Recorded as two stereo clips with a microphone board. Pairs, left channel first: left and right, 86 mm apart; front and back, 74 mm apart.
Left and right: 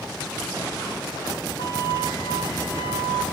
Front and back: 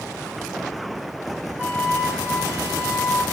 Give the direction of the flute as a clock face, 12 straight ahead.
8 o'clock.